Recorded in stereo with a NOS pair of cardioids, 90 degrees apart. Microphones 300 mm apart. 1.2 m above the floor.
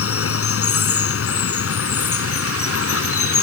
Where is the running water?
50° left.